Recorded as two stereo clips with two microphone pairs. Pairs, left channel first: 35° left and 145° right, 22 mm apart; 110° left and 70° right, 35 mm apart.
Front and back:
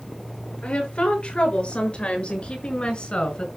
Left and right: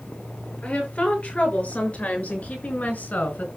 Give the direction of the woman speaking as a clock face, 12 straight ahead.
10 o'clock.